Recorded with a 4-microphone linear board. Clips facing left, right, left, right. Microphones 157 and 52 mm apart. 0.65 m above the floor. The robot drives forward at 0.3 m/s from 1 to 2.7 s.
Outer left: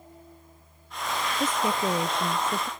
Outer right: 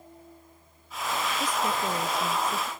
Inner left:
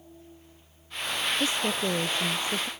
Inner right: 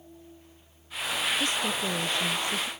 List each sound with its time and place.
1.4 s a woman speaking: 25° left (ahead or behind)